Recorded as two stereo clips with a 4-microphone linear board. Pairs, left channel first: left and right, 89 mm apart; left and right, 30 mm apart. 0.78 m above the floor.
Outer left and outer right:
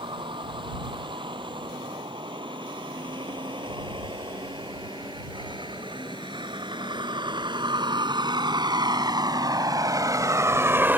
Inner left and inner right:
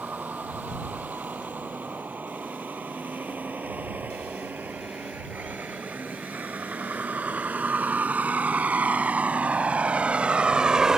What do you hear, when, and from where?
0.0 s a vehicle: 70° right (ahead or behind); by 11.0 s 20° right (ahead or behind)